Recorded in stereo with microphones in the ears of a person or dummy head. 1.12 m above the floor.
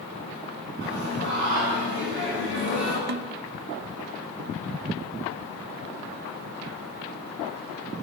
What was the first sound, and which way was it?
Singing, 70° right (ahead or behind).